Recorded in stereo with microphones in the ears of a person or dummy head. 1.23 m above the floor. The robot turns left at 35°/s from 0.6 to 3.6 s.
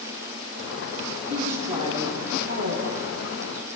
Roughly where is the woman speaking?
Ahead.